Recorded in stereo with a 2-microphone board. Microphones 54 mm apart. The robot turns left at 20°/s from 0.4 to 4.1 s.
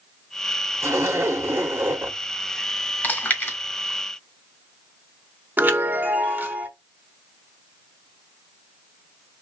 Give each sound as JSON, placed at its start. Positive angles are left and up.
{"t": 0.8, "sound": "a zipper", "side_deg": -55, "distance_m": 0.8}
{"t": 3.0, "sound": "chewing", "side_deg": 30, "distance_m": 1.4}
{"t": 5.6, "sound": "a chime", "side_deg": -35, "distance_m": 0.7}